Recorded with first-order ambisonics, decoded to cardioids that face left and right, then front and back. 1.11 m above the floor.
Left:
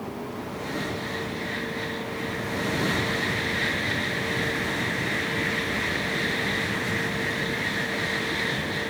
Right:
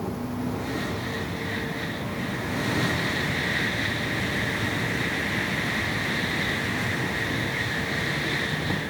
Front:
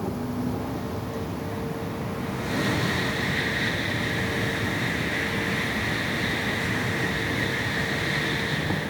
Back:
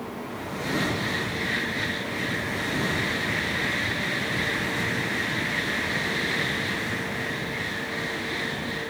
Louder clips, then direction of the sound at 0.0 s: Right 2 dB, front 3 dB; 35° right.